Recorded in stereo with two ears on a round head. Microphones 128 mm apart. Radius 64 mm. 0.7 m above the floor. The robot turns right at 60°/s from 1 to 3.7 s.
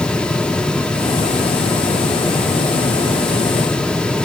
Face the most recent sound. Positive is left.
No sound to turn to.